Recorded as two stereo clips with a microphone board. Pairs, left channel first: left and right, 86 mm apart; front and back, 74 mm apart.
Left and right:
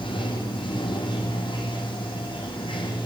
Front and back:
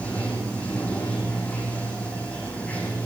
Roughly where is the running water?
Left.